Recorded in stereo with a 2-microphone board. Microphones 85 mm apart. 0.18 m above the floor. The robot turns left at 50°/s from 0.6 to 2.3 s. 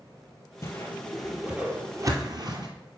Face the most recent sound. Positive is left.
turn(degrees=-50)  # may be behind; listen again after turning